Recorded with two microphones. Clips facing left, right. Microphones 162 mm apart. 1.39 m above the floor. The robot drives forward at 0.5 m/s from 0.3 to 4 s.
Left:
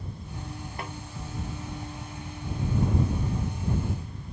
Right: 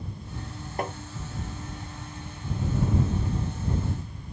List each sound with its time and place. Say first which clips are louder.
0.8 s tapping: right 9 dB; 45° right (ahead or behind); by 1.0 s 40° right (ahead or behind)